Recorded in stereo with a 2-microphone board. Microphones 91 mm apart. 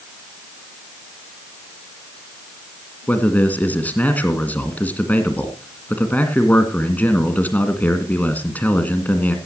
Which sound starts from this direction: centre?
A man speaking, at 3.1 s.